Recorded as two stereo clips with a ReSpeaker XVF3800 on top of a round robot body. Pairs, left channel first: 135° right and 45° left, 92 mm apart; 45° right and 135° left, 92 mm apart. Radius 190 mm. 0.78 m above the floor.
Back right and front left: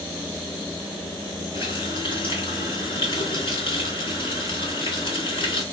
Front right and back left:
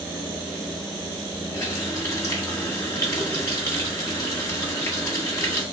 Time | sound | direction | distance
1.5 | a running tap | 105° right | 2.5 m